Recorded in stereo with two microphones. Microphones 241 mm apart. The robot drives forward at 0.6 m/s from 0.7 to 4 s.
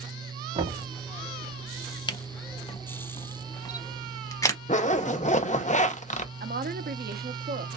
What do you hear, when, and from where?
0.6 s knocking: 25° right (ahead or behind), 1.3 m
2.1 s a camera shutter: 20° left (ahead or behind), 0.7 m; by 4.6 s 15° left (ahead or behind), 0.9 m
4.7 s a zipper: 30° left (ahead or behind), 0.6 m
6.4 s a woman speaking: 40° right (ahead or behind), 0.7 m